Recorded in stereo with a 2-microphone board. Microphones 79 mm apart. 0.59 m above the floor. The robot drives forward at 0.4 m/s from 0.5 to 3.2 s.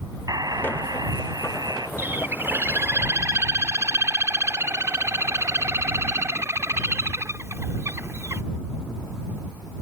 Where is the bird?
30° right (ahead or behind); by 8.4 s 40° right (ahead or behind).